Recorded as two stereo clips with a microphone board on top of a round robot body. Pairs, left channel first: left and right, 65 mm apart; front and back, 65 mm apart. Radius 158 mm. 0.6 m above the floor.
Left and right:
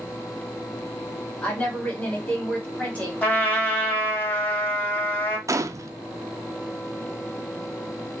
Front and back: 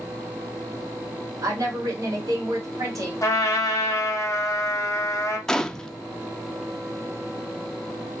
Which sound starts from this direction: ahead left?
A trumpet, at 3.2 s.